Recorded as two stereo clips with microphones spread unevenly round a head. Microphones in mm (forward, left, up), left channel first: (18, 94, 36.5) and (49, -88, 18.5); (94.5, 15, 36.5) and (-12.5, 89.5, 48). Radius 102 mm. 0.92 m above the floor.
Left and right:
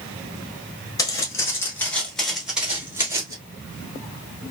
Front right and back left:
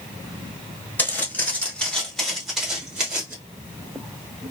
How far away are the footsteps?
About 1.1 m.